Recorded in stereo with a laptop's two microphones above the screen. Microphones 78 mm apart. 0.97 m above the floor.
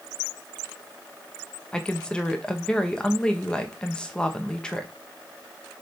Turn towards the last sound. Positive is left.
turn(degrees=10)  # may be behind; listen again after turning